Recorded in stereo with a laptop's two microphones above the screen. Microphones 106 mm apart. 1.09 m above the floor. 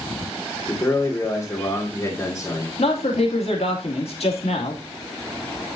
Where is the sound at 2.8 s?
70° left (ahead or behind), 2.5 m.